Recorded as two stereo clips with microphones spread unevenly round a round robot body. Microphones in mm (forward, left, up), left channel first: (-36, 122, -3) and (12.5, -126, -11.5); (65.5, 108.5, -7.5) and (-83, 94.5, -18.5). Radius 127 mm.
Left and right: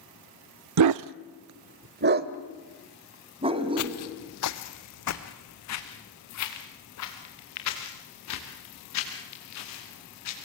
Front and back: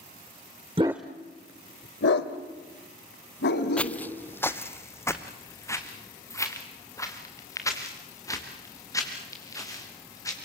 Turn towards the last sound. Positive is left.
turn(degrees=75)